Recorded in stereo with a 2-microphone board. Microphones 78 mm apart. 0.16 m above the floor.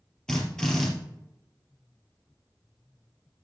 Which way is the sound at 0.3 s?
10° left (ahead or behind).